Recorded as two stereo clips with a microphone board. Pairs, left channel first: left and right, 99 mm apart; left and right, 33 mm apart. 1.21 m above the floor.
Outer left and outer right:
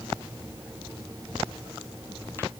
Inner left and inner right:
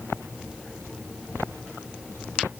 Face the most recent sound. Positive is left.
No sound to turn to.